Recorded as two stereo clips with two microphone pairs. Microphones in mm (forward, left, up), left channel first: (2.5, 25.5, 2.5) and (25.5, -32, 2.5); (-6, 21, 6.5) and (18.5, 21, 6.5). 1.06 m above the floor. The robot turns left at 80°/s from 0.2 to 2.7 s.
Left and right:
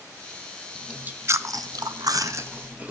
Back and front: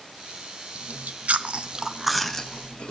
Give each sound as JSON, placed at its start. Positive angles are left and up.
{"t": 0.8, "sound": "chewing", "azimuth_deg": 20, "distance_m": 0.5}